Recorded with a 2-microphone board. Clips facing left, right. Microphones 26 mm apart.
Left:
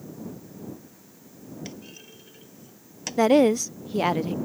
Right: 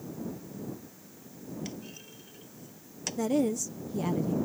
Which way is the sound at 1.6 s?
15° left (ahead or behind).